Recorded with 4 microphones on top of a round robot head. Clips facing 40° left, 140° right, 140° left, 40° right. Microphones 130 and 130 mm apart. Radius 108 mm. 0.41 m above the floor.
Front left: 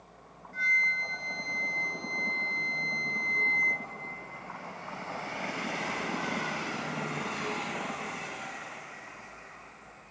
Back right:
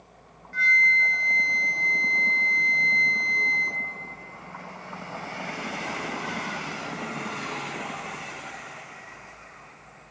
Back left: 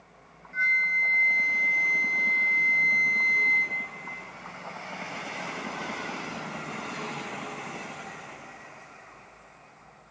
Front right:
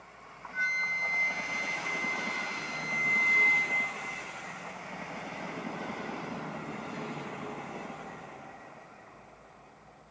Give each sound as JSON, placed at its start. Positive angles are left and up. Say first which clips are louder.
{"t": 0.5, "sound": "a flute", "louder": "back right 8 dB, back left 5 dB", "azimuth_deg": -115, "distance_m": 0.8}